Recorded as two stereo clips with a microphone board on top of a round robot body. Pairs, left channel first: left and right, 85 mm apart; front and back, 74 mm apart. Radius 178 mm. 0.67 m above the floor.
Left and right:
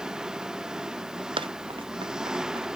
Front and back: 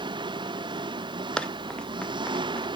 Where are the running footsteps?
75° right.